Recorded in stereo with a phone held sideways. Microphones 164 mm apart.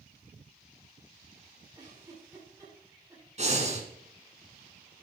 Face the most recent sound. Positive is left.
turn(degrees=-45)  # may be behind; listen again after turning